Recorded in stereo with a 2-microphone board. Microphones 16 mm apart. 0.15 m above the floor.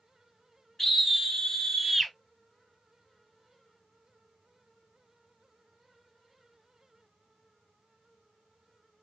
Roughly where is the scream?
Left.